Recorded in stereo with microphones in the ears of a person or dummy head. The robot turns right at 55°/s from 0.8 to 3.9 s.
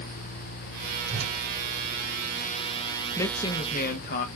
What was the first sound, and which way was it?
A whoosh, 75° right (ahead or behind).